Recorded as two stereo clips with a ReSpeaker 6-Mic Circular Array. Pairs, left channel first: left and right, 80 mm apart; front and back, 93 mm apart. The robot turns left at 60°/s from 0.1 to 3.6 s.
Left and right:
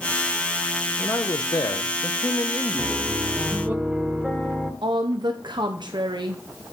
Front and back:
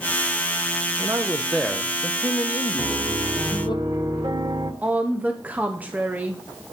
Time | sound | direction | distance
1.0 | a man speaking | 130° left | 0.7 m
2.8 | a piano | 120° right | 1.6 m
4.8 | a woman speaking | 105° right | 0.9 m